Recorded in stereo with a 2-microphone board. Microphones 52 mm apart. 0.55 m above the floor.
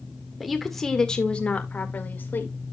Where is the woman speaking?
5° right (ahead or behind), 1.5 m; by 2.5 s 45° left (ahead or behind), 2.0 m.